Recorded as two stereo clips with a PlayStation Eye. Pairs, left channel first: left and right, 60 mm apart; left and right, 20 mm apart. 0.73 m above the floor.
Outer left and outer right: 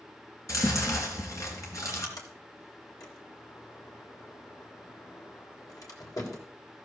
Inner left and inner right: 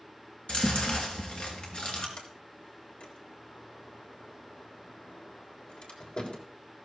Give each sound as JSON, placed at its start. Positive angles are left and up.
{"t": 0.5, "sound": "chewing", "side_deg": 60, "distance_m": 3.5}
{"t": 2.2, "sound": "a sliding door", "side_deg": 75, "distance_m": 3.5}